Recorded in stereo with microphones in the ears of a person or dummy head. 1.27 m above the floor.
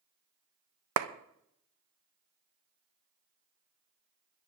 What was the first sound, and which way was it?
A clap, 75° right (ahead or behind).